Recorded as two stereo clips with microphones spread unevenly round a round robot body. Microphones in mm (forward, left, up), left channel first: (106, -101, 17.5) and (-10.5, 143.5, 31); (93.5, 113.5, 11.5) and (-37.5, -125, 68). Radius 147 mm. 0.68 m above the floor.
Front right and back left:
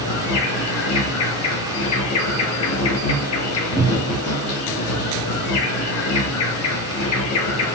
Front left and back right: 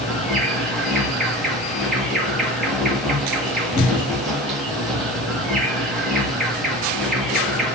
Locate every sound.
0.0 s an insect: 30° right, 1.3 m
3.8 s a cupboard door: 10° left, 3 m